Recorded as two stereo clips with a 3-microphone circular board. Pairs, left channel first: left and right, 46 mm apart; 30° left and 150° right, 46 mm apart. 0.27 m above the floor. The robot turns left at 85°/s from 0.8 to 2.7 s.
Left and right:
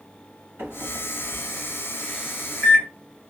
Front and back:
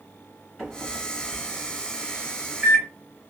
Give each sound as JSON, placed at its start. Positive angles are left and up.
{"t": 0.6, "sound": "a microwave", "azimuth_deg": -70, "distance_m": 2.5}